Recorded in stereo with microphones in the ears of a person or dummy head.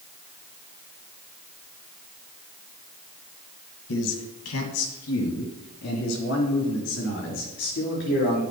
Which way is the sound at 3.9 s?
80° left.